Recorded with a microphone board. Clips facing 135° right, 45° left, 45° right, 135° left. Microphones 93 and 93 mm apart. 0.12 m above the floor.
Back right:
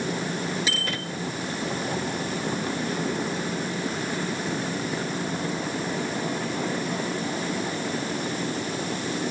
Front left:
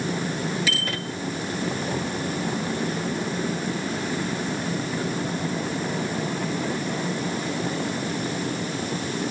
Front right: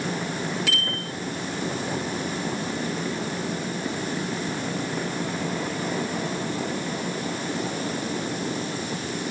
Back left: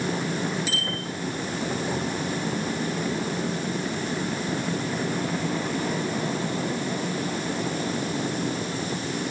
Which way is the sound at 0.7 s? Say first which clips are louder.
Front left 1 dB, front right 1 dB; 70° right.